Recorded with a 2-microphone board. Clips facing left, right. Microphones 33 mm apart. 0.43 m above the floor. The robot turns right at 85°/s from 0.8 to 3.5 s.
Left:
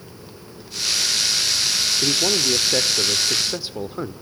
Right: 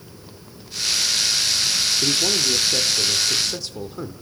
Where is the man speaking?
5° left (ahead or behind), 0.8 m; by 4.1 s 20° left (ahead or behind), 0.8 m.